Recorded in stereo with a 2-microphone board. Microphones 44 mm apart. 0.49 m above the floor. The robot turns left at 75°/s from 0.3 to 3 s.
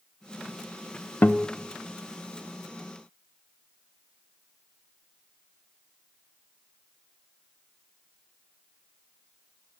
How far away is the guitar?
About 0.6 m.